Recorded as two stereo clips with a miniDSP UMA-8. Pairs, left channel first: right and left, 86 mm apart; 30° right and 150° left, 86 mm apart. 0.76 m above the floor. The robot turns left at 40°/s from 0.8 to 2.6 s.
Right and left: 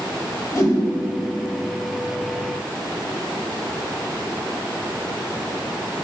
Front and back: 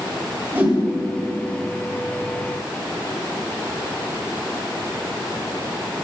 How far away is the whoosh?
About 3 m.